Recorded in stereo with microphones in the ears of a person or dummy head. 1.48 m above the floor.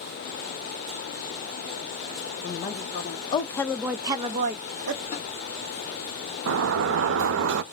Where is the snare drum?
30° left (ahead or behind), 2.5 m.